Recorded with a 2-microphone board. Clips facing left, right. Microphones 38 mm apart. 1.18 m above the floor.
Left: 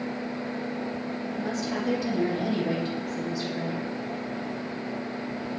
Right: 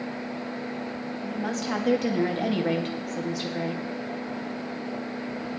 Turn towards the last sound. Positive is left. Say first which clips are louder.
# right 2 dB
turn(degrees=-75)  # may be behind; listen again after turning